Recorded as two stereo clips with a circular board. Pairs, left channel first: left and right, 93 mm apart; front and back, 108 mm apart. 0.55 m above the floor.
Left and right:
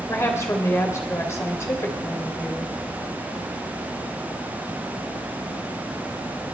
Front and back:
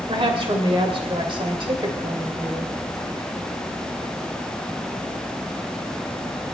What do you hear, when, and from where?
0.1 s a woman speaking: 150° left, 2.5 m